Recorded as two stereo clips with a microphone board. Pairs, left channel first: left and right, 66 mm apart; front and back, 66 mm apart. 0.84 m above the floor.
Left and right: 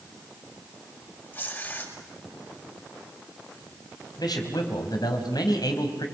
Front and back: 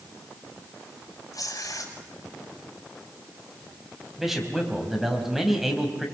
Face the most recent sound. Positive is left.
turn(degrees=95)